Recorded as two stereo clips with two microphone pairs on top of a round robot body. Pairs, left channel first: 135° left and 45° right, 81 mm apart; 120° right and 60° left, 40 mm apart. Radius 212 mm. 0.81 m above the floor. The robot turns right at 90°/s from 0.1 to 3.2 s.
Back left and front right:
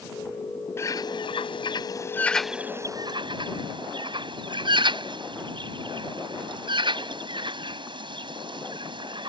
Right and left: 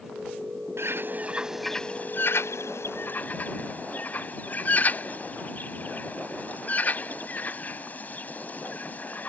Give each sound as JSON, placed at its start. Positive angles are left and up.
{"t": 0.8, "sound": "a bird", "azimuth_deg": 75}